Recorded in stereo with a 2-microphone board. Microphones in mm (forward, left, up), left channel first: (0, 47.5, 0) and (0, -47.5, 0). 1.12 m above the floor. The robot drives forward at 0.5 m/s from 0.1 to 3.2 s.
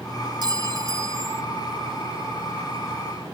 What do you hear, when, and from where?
0.4 s a clink: 45° right (ahead or behind), 1.0 m; by 1.4 s 30° right (ahead or behind), 1.4 m